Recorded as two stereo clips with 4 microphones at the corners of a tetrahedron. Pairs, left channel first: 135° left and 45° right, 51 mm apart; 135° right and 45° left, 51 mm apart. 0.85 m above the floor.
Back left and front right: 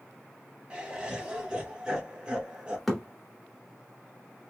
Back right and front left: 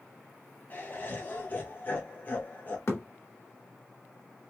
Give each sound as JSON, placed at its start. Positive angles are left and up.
{"t": 0.7, "sound": "laughter", "azimuth_deg": -110, "distance_m": 0.6}
{"t": 2.9, "sound": "a thud", "azimuth_deg": -140, "distance_m": 1.2}